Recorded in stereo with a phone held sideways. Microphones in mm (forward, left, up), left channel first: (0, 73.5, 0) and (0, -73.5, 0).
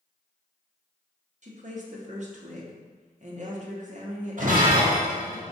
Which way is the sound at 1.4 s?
55° right (ahead or behind).